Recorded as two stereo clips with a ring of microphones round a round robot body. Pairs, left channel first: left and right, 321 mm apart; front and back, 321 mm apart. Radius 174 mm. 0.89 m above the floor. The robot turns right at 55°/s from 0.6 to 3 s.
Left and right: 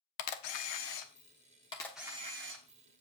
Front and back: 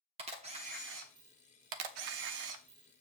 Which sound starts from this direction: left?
A camera shutter, at 0.2 s.